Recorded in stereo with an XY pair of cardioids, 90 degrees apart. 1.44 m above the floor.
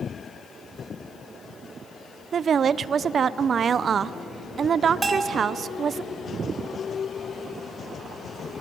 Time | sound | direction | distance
2.3 | a woman speaking | 55° right | 0.6 m
5.0 | a bell | 35° right | 1.5 m